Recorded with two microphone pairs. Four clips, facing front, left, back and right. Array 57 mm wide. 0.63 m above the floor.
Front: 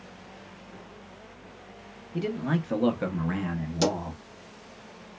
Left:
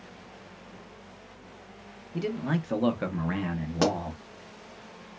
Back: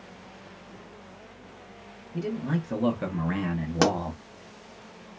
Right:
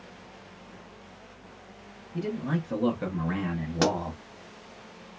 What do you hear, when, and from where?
2.1 s a man speaking: 45° left, 0.8 m; by 4.2 s 160° right, 0.7 m
3.8 s a pop: straight behind, 0.8 m